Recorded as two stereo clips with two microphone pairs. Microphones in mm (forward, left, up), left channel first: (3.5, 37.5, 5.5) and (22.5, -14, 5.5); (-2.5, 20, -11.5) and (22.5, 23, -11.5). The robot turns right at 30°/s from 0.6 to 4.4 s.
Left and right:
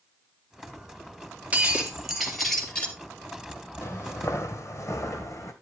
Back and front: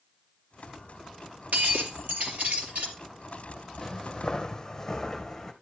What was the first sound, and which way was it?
Breaking glass, 5° right.